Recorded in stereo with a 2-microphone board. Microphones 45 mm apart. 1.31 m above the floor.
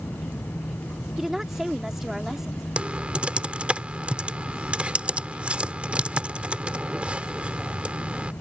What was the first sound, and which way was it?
A woman speaking, 10° right (ahead or behind).